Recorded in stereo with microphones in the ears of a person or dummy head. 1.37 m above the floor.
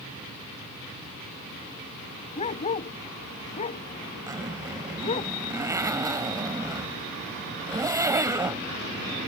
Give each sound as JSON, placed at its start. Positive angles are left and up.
{"t": 2.4, "sound": "a dog barking", "side_deg": 40}
{"t": 4.3, "sound": "a zipper", "side_deg": -15}